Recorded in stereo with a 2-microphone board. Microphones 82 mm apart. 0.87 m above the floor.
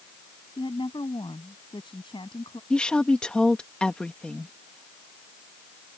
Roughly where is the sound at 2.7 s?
Centre.